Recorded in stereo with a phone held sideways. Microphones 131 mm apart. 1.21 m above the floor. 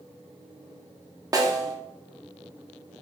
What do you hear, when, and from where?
1.3 s a snare drum: 25° right (ahead or behind), 0.7 m